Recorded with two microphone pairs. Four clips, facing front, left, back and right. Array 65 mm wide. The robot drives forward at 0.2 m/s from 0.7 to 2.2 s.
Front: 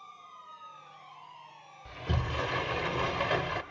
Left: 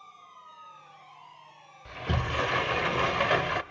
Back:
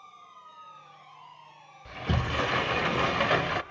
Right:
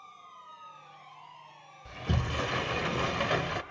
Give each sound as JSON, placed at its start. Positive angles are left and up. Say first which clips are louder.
{"t": 1.9, "sound": "a sliding door", "louder": "left 2 dB, back 4 dB", "azimuth_deg": 130, "distance_m": 0.5}